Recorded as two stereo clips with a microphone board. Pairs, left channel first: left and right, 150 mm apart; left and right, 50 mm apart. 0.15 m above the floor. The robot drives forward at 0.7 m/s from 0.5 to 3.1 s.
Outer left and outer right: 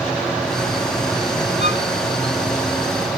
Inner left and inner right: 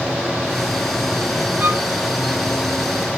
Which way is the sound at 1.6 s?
45° right (ahead or behind).